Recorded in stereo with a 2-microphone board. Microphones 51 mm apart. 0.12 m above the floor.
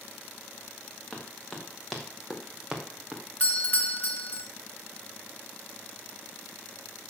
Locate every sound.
1.1 s running footsteps: 15° left (ahead or behind), 3.5 m; by 3.2 s 15° right (ahead or behind), 3 m
3.4 s a doorbell: 30° left (ahead or behind), 1.6 m